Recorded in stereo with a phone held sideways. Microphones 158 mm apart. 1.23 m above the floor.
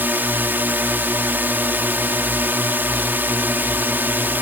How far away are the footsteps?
I don't hear footsteps.